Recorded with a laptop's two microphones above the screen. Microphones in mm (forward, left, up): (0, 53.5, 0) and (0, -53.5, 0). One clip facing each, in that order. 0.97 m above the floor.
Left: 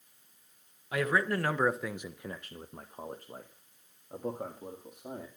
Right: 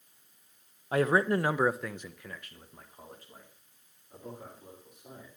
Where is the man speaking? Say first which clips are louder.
Right 4 dB; 40° right (ahead or behind), 0.9 m; by 5.3 s 65° left (ahead or behind), 2.5 m.